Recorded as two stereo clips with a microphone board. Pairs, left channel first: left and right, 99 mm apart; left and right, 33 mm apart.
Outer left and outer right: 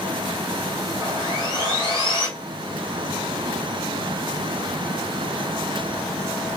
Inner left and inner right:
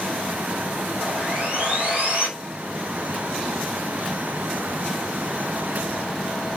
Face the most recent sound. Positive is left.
turn(degrees=-40)  # may be behind; listen again after turning